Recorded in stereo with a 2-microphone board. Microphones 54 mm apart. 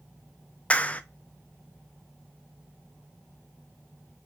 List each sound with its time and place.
0.7 s a clap: 25° left (ahead or behind), 0.5 m